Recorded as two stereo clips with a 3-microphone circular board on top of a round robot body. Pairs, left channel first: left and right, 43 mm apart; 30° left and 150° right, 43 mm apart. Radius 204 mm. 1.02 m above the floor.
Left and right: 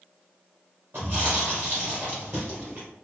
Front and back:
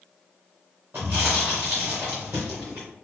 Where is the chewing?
115° right, 0.7 m.